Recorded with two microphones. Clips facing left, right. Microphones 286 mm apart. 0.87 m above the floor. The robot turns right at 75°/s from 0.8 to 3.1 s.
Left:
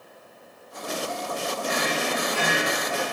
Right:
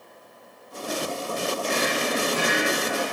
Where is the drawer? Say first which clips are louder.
Even; 165° left, 3 m; by 3.0 s 85° right, 3 m.